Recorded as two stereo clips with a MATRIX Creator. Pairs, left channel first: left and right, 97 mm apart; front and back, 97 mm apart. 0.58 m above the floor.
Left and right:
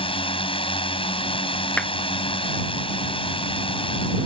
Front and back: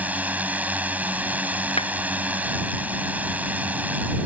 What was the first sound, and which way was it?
A drone, 105° left.